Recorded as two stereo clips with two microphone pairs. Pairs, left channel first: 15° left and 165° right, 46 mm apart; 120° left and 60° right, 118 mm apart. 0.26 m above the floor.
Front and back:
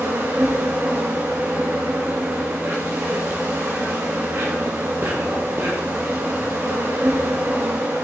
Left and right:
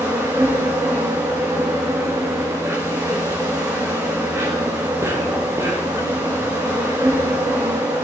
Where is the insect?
125° right, 3.5 m.